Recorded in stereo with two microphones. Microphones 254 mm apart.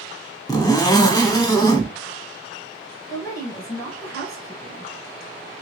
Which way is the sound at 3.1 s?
15° left (ahead or behind).